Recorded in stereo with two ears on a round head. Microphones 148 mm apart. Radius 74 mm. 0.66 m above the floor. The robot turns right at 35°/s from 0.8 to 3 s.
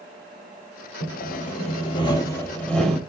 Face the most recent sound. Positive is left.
turn(degrees=180)